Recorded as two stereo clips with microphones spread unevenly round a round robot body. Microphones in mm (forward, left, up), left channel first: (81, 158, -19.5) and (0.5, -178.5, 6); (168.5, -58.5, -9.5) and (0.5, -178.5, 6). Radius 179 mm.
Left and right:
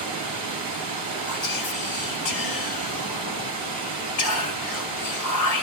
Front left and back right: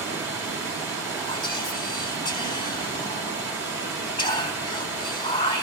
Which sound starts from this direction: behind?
Running water, at 0.0 s.